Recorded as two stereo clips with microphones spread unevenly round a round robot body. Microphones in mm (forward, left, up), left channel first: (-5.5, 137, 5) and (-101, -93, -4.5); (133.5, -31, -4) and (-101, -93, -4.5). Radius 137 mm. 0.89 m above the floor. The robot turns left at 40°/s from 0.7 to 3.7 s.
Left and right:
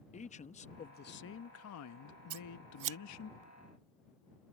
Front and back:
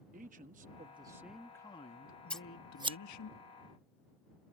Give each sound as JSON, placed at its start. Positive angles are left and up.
{"t": 0.1, "sound": "a man speaking", "azimuth_deg": 130}
{"t": 2.3, "sound": "scissors", "azimuth_deg": -70}